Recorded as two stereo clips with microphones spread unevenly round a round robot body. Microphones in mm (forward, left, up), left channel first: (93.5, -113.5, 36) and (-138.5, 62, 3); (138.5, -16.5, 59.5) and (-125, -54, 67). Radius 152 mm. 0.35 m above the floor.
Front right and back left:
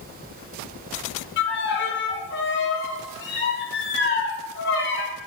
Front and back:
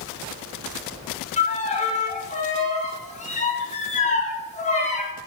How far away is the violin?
About 0.6 m.